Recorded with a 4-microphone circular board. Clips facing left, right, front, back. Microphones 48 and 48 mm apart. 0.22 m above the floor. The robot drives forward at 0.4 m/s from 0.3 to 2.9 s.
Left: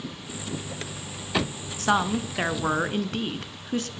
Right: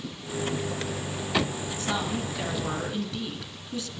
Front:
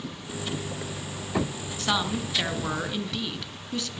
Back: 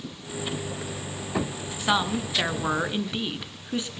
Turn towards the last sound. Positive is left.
turn(degrees=115)